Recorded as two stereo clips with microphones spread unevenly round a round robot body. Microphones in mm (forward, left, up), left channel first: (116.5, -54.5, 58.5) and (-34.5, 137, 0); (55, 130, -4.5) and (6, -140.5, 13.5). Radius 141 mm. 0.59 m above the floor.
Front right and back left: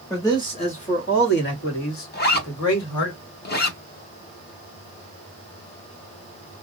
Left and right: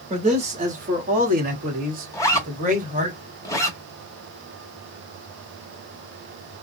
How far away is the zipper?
About 1.0 m.